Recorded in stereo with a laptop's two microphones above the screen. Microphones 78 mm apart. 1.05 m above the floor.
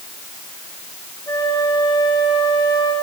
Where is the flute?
65° left (ahead or behind), 4 m.